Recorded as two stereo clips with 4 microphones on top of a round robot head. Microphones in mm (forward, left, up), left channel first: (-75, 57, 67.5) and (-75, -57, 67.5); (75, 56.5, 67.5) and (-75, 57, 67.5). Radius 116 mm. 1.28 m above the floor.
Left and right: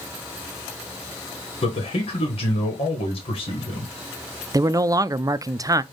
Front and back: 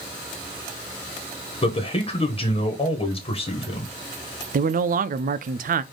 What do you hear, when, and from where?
1.6 s a man speaking: 50° left, 1.4 m
4.5 s a man speaking: 150° right, 0.5 m